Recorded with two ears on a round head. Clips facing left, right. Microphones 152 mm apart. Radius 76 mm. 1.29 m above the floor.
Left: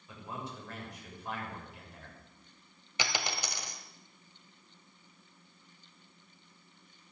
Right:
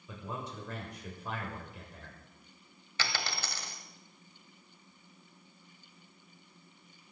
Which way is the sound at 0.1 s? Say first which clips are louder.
Right 1 dB; 80° right.